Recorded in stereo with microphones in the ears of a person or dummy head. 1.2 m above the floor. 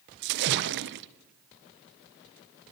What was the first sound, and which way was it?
A splash, 55° right (ahead or behind).